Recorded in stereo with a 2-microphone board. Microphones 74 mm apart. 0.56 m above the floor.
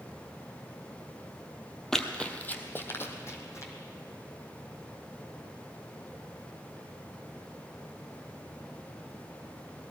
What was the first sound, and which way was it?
Running footsteps, 5° left (ahead or behind).